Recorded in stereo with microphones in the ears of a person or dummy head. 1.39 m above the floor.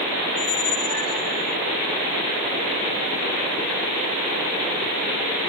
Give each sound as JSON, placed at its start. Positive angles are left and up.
{"t": 0.3, "sound": "a squeak", "side_deg": 80}